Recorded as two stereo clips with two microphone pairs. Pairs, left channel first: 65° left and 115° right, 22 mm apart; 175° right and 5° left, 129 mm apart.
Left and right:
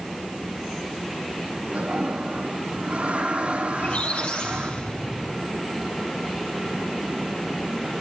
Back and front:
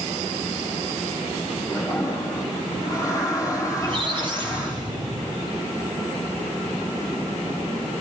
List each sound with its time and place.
1.7 s a toilet flushing: 115° right, 8 m
3.7 s a squeak: 50° left, 2.5 m